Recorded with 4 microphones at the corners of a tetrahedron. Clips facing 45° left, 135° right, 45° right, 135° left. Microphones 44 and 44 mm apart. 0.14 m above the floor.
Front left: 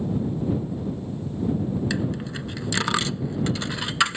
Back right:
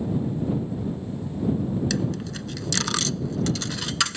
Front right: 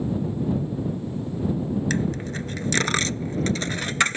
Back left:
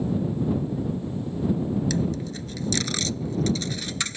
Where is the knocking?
I don't hear knocking.